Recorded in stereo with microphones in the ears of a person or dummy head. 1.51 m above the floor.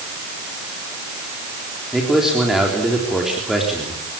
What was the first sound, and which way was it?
A man speaking, centre (ahead or behind).